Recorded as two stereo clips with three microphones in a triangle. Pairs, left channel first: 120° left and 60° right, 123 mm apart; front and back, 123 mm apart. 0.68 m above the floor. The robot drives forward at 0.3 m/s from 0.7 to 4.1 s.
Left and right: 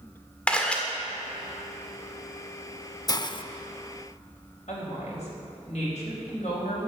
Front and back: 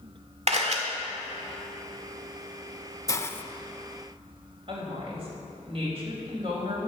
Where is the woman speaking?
145° left, 4 m.